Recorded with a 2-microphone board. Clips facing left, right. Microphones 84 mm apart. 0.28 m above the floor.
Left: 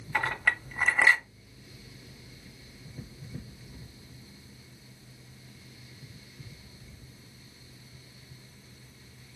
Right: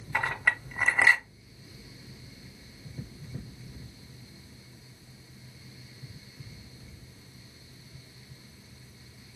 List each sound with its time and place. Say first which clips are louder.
0.1 s a clink: even; 5° right (ahead or behind), 0.7 m